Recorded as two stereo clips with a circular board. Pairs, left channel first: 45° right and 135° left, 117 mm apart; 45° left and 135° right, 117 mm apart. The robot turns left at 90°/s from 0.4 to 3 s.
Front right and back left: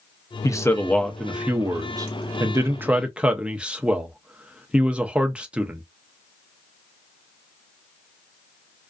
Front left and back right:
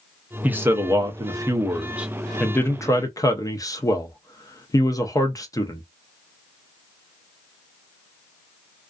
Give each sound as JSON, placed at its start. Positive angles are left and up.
{"t": 0.4, "sound": "a man speaking", "azimuth_deg": -70, "distance_m": 0.5}